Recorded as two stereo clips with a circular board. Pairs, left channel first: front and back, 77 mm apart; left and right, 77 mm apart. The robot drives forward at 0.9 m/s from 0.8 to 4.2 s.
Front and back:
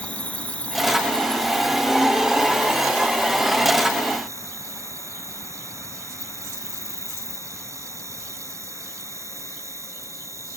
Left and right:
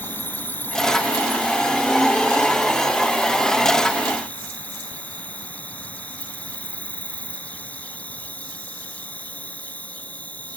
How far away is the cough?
I don't hear a cough.